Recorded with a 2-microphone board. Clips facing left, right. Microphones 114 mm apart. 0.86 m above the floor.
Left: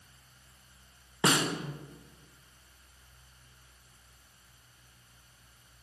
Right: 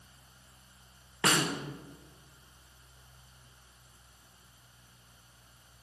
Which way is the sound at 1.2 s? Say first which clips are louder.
Left 2 dB; 20° left (ahead or behind).